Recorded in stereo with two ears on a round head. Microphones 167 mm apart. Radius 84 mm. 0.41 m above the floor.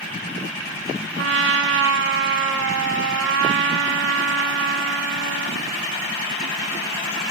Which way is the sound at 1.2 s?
70° right (ahead or behind).